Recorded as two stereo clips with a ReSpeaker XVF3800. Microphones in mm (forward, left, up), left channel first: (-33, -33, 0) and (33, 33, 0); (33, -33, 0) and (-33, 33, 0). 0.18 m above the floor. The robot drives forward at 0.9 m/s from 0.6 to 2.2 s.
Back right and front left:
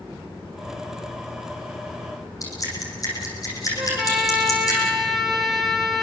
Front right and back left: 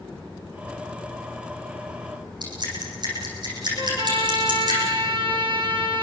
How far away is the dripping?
About 9.5 m.